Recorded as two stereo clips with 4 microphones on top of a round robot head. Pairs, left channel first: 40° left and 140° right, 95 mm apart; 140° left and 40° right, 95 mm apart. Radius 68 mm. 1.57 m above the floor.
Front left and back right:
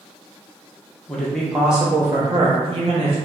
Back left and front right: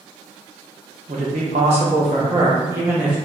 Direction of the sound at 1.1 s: 40° right.